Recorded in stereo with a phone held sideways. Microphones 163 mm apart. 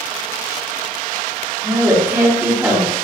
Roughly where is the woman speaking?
Centre.